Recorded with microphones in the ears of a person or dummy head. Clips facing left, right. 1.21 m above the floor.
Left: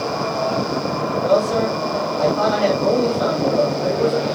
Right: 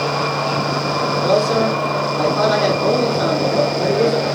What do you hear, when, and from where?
1.2 s a man speaking: 70° right (ahead or behind), 3.5 m